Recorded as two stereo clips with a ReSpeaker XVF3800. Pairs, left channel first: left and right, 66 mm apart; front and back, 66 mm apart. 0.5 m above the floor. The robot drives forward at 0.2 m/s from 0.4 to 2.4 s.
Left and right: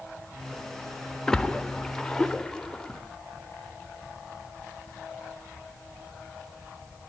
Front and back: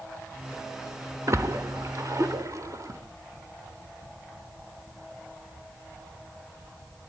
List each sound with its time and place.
1.3 s a splash: 170° left, 1.2 m